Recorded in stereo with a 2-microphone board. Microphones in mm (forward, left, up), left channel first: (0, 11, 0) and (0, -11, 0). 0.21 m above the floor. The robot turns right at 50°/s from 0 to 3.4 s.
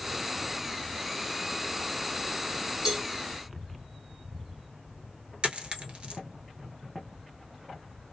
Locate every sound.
2.9 s a cowbell: 25° right (ahead or behind), 1.2 m
5.4 s a dropped coin: 55° right (ahead or behind), 1.0 m